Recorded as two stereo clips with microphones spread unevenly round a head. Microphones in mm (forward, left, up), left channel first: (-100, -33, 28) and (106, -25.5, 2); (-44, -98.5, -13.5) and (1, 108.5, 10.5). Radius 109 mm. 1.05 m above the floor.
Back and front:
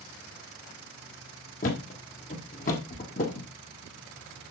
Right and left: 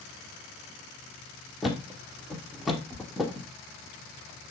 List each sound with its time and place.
1.6 s a thud: 160° left, 1.4 m